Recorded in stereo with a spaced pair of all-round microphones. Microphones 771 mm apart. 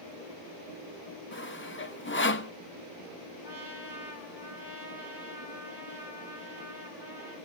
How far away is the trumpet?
About 6.5 m.